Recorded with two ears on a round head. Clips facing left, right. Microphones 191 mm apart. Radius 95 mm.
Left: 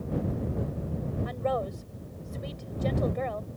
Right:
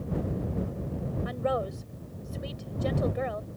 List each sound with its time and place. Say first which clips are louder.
1.2 s a woman speaking: right 1 dB; 5° right (ahead or behind)